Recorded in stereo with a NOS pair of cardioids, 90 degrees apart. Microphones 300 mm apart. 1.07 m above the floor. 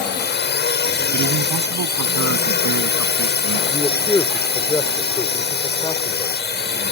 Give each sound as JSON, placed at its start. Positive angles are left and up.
{"t": 0.0, "sound": "a drone", "azimuth_deg": 35}
{"t": 1.1, "sound": "a man speaking", "azimuth_deg": -70}
{"t": 3.7, "sound": "a man speaking", "azimuth_deg": 10}